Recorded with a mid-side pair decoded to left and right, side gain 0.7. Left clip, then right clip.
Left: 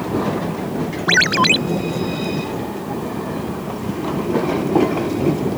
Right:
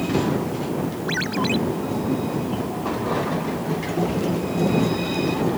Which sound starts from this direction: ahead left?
A ringtone, at 1.1 s.